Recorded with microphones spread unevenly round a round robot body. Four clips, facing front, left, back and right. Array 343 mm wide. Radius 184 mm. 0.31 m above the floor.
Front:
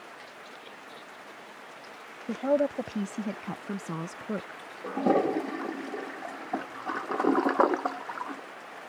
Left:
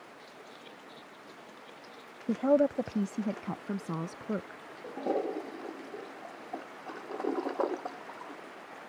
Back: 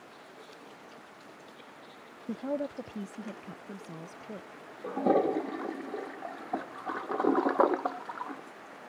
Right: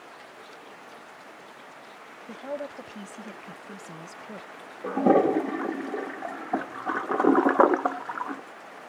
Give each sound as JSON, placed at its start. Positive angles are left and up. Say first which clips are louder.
{"t": 2.3, "sound": "a woman speaking", "louder": "left 10 dB, front 8 dB", "azimuth_deg": 65}
{"t": 4.8, "sound": "a toilet flushing", "louder": "right 12 dB, front 1 dB", "azimuth_deg": -75}